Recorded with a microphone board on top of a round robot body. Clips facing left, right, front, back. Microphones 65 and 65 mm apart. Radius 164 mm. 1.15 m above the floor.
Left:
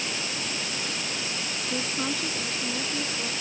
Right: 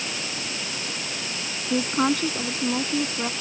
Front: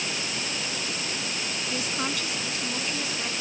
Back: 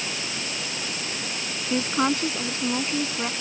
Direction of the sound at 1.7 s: 125° right.